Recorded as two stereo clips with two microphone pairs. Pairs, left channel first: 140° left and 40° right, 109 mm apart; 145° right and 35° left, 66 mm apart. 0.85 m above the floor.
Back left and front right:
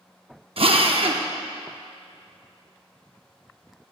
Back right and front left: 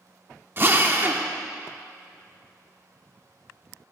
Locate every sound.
0.6 s a drill: 15° right, 0.7 m